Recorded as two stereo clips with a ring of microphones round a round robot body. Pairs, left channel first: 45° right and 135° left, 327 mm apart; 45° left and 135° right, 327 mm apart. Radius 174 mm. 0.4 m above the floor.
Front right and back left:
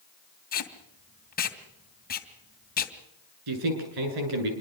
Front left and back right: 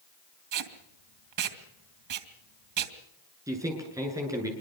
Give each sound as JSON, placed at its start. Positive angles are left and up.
{"t": 0.5, "sound": "tape being pulled", "azimuth_deg": -110, "distance_m": 2.5}
{"t": 3.5, "sound": "a man speaking", "azimuth_deg": 145, "distance_m": 7.0}